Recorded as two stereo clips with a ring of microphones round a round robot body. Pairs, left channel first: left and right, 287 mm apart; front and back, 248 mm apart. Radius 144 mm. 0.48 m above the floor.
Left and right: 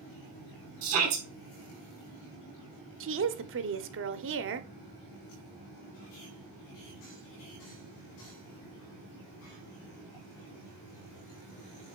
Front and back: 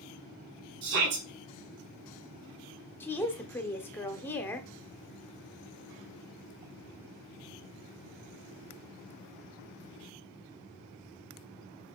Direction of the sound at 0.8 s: 130° right.